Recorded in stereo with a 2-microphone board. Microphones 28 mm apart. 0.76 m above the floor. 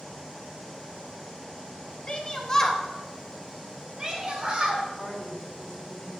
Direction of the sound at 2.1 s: 30° left (ahead or behind).